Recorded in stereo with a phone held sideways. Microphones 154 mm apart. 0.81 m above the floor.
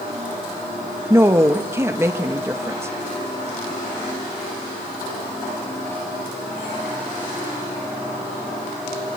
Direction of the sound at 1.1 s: 15° right (ahead or behind).